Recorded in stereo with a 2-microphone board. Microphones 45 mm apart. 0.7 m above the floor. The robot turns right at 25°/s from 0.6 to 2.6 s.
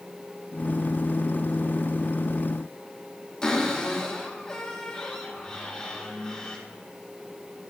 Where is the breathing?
I don't hear breathing.